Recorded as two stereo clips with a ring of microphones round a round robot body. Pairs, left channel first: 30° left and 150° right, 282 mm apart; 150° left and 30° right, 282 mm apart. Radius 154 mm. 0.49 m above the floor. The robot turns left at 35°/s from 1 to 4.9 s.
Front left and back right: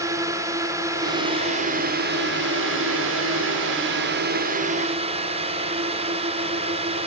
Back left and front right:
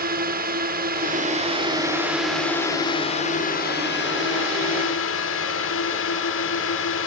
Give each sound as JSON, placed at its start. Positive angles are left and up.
{"t": 0.0, "sound": "a drone", "azimuth_deg": -75}